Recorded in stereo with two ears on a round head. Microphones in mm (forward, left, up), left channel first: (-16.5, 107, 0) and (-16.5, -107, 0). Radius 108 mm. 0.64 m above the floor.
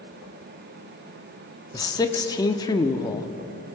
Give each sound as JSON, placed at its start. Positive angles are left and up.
{"t": 1.7, "sound": "a man speaking", "side_deg": 15, "distance_m": 1.0}